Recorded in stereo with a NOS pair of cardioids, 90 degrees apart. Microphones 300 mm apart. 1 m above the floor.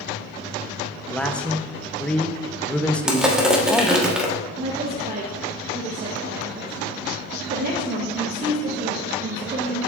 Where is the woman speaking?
30° right, 1.0 m.